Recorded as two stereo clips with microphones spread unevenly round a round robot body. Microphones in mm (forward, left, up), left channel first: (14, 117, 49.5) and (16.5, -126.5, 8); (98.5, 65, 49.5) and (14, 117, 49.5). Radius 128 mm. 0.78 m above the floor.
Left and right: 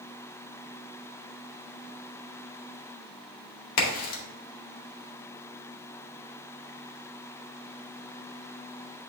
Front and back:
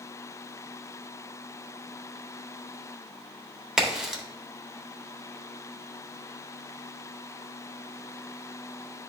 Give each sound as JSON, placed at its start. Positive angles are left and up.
{"t": 3.8, "sound": "a crack", "azimuth_deg": 65, "distance_m": 1.7}